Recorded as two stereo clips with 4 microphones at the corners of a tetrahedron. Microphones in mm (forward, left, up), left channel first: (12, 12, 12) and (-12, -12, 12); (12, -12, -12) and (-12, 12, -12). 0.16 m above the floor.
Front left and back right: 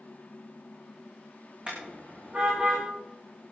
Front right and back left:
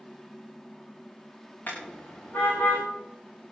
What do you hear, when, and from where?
1.7 s a car horn: 75° right, 9 m; by 2.9 s 70° right, 10.5 m